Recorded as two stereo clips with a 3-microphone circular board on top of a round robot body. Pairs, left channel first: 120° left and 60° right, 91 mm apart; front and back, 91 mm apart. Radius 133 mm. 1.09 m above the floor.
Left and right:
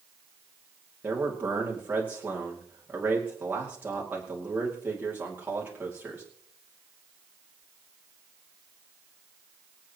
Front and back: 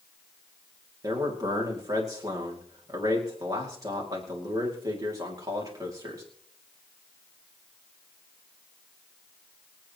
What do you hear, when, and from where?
1.0 s a man speaking: 130° right, 2.5 m